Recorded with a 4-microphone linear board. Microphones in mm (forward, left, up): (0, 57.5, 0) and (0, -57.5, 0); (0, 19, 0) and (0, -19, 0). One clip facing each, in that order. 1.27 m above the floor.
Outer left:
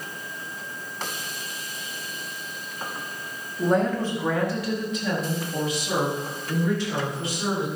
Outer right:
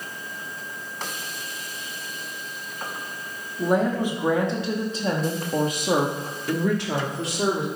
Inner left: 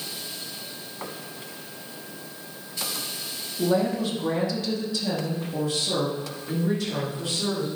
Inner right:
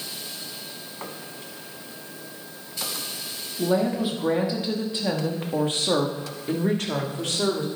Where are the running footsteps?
No running footsteps in this recording.